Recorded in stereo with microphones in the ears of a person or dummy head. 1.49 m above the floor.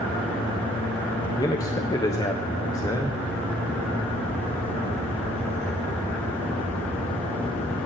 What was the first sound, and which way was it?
A man speaking, 15° left (ahead or behind).